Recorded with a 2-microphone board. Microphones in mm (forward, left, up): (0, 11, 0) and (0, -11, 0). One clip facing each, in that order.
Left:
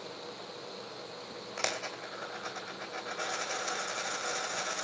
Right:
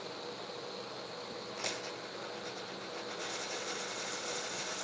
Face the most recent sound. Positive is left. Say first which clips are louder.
# left 6 dB
turn(degrees=70)  # may be behind; listen again after turning